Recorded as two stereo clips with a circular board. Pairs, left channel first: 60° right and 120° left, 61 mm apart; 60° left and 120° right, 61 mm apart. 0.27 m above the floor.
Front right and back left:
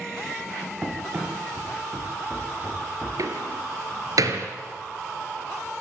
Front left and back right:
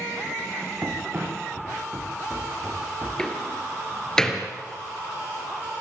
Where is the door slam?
140° left, 3 m.